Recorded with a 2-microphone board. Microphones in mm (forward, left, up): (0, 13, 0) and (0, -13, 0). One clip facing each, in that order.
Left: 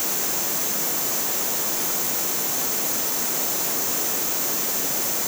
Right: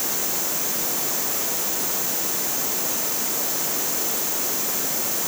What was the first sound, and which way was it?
Only background noise.